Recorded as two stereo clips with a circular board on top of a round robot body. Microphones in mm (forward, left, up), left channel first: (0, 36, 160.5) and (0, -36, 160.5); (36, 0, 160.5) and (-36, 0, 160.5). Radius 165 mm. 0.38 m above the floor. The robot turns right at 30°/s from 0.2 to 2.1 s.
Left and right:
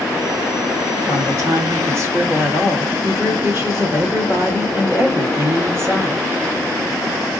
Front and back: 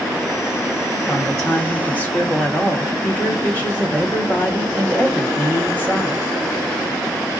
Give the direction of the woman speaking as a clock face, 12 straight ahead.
3 o'clock.